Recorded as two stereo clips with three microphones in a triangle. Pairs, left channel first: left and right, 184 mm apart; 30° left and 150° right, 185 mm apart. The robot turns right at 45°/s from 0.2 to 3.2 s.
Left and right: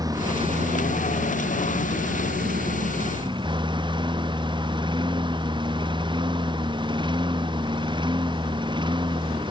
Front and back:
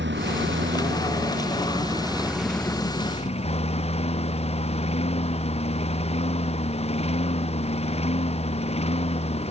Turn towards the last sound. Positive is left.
turn(degrees=-25)